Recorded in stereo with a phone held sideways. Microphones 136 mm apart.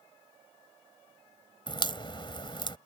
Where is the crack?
35° left (ahead or behind).